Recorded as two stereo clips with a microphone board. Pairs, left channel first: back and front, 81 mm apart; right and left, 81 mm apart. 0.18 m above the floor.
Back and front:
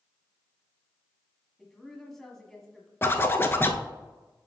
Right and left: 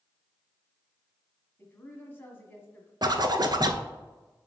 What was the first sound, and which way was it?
A woman speaking, 100° right.